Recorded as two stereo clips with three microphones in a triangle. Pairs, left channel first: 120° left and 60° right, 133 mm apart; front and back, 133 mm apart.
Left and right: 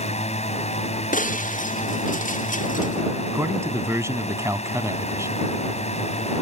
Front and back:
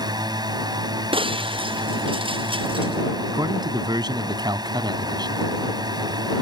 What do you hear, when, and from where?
0.0 s a drone: 130° left
1.1 s breaking glass: 130° left
3.3 s a man speaking: 125° right